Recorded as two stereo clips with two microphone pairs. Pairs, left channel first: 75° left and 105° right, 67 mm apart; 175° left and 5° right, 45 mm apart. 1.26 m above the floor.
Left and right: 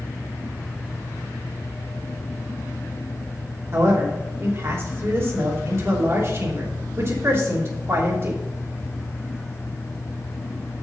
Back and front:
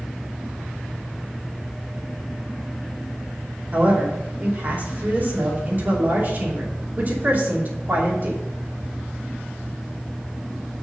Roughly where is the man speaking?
Ahead right.